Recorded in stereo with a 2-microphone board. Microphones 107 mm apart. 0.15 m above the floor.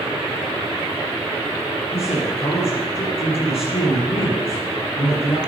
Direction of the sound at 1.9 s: 65° left (ahead or behind).